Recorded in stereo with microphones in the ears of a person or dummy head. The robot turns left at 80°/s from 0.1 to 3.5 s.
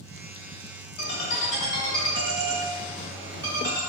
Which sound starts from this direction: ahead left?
A ringtone, at 1.0 s.